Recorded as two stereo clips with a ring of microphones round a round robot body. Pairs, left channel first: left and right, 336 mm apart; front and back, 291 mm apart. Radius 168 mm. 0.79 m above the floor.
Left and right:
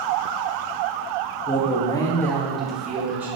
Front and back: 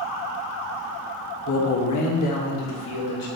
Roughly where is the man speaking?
Ahead left.